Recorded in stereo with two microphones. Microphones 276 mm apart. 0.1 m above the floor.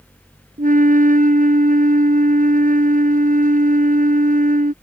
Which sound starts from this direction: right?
A flute, at 0.6 s.